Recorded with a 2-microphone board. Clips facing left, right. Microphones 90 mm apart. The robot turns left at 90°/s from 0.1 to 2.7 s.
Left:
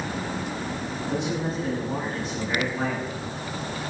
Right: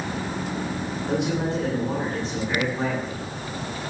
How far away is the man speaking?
About 10 m.